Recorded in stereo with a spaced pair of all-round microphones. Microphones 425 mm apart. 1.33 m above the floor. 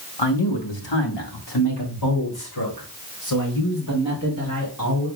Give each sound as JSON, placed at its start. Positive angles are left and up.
{"t": 0.2, "sound": "a man speaking", "side_deg": 70, "distance_m": 1.5}